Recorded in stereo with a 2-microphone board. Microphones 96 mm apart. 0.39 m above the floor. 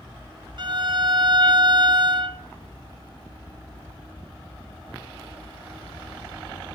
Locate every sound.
0.6 s a violin: 50° right (ahead or behind), 1.1 m